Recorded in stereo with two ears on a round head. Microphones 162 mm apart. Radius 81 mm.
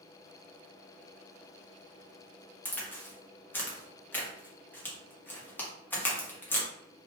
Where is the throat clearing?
I don't hear throat clearing.